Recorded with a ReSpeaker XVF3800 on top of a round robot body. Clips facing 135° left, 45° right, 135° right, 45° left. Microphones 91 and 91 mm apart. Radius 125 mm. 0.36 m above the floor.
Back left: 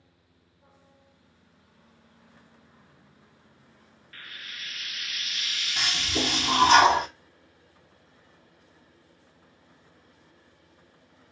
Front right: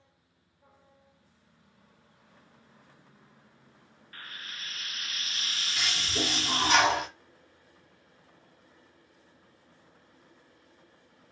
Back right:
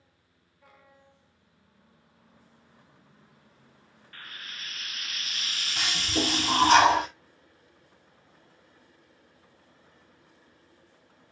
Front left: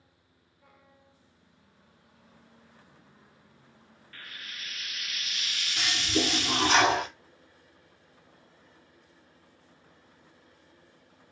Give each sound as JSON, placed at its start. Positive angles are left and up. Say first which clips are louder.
{"t": 4.1, "sound": "frying", "louder": "even, back right 1 dB", "azimuth_deg": -95, "distance_m": 0.5}
{"t": 5.8, "sound": "a toilet flushing", "louder": "back left 4 dB, front left 1 dB", "azimuth_deg": -175, "distance_m": 2.0}